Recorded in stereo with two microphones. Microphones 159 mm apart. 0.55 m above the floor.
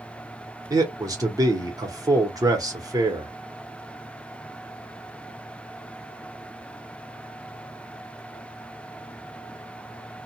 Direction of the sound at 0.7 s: 20° right (ahead or behind).